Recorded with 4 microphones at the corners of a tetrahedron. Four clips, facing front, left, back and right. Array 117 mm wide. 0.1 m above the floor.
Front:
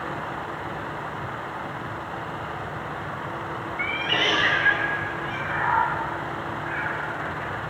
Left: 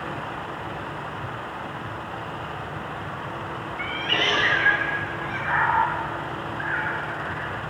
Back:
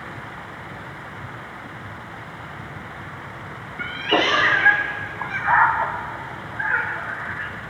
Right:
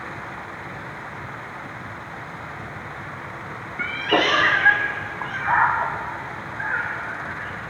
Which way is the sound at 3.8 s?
125° right.